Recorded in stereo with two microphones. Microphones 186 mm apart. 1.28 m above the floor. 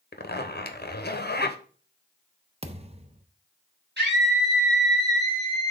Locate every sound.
0.1 s a zipper: 60° left (ahead or behind), 0.8 m
2.6 s a thud: 35° right (ahead or behind), 0.7 m
4.0 s a scream: 65° right (ahead or behind), 2.5 m